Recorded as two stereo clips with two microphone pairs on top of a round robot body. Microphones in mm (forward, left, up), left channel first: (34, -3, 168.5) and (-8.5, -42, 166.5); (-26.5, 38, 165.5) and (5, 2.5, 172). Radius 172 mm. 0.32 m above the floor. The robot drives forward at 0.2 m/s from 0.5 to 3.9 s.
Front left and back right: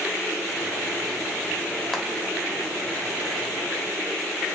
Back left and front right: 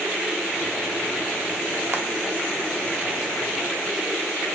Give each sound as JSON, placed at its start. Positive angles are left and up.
{"t": 1.9, "sound": "frying", "azimuth_deg": -40, "distance_m": 1.1}